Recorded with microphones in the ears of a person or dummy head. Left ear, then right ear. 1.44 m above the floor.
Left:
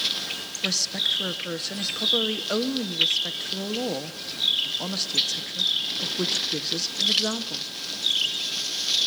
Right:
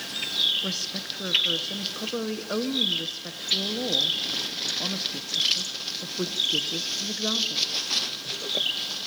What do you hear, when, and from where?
0.6 s a woman speaking: 20° left (ahead or behind), 1.0 m